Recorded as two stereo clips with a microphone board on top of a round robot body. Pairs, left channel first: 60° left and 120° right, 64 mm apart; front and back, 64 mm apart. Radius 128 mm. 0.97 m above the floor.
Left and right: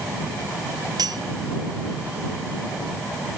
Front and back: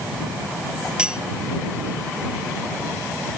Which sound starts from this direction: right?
Cutlery clinking, at 1.0 s.